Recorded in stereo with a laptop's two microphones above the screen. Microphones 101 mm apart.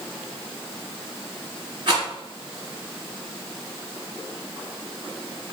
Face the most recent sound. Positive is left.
turn(degrees=-50)  # may be behind; listen again after turning